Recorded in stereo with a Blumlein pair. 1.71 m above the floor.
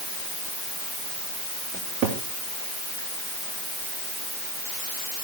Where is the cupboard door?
35° right, 3 m.